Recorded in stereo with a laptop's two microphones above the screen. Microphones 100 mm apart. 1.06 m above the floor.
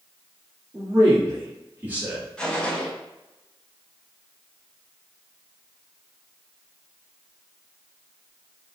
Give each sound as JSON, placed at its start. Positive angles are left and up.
{"t": 0.7, "sound": "a man speaking", "side_deg": -25, "distance_m": 1.8}
{"t": 2.4, "sound": "a gunshot", "side_deg": 10, "distance_m": 0.6}